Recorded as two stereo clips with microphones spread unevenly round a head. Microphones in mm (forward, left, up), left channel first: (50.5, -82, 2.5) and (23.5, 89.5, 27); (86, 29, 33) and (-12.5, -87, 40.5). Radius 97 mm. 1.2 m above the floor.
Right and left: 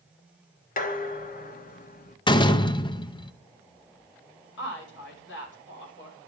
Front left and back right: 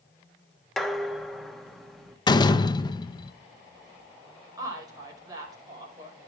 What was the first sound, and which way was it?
Dishes clattering, 40° right.